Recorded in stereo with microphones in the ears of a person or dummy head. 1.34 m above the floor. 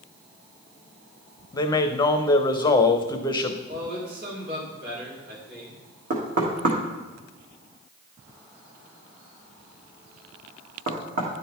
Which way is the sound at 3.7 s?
60° right (ahead or behind).